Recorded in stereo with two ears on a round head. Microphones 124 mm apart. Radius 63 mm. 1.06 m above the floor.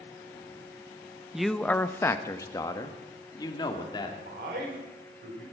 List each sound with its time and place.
1.3 s a man speaking: 5° right (ahead or behind), 0.6 m; by 4.2 s 35° left (ahead or behind), 2.5 m
4.2 s a man speaking: 70° right (ahead or behind), 4.5 m